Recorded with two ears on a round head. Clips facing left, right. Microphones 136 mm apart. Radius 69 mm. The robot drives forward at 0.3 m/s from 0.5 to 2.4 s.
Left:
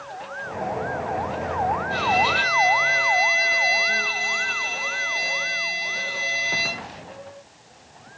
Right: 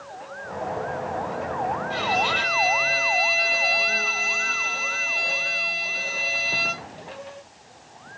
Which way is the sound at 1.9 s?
5° left (ahead or behind).